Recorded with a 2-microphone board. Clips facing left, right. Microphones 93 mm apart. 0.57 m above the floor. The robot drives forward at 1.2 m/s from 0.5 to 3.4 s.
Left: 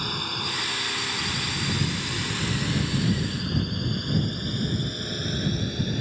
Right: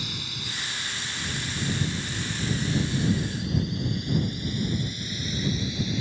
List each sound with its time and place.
0.0 s a drone: 55° left (ahead or behind); by 6.0 s 50° left (ahead or behind)